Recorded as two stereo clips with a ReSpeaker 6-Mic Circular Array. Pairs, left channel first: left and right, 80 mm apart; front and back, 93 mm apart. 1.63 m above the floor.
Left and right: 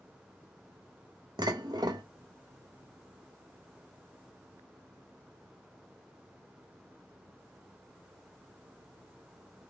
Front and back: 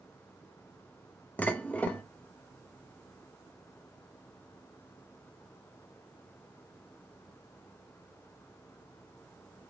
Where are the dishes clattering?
70° right, 1.4 m.